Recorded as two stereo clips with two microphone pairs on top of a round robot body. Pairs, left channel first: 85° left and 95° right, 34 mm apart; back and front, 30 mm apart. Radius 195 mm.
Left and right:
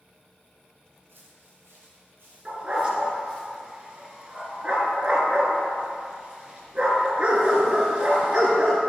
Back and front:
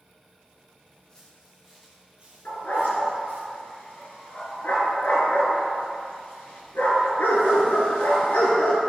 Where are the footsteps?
120° right, 1.7 m; by 3.5 s 15° left, 1.6 m.